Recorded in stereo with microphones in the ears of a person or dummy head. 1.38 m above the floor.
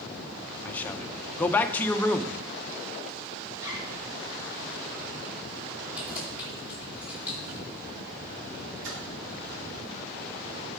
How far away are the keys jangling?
About 3.5 m.